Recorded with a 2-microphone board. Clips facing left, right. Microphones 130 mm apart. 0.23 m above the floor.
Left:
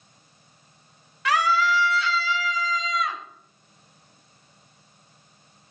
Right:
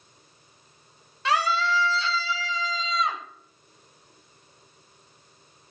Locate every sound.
1.2 s a scream: 25° right (ahead or behind), 1.2 m; by 3.2 s 30° right (ahead or behind), 1.7 m